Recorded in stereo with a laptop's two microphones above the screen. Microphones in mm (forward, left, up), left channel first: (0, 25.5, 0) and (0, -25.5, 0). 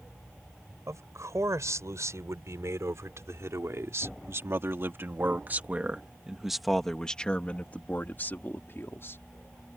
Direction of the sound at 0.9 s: 80° right.